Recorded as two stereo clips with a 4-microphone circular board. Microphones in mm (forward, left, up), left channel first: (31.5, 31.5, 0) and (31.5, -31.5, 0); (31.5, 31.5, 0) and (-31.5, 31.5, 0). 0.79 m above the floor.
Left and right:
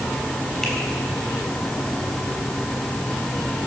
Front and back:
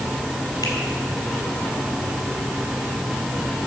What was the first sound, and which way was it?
A finger snap, 5° left.